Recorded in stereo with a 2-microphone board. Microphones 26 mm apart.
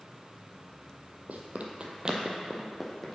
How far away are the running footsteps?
About 1.0 m.